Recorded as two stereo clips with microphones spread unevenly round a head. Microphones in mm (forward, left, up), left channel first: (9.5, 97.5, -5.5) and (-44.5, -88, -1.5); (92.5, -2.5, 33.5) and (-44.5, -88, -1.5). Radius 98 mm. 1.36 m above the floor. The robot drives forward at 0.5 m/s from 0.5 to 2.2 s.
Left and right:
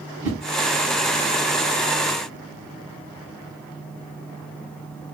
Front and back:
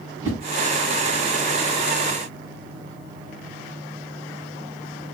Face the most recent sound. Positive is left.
turn(degrees=180)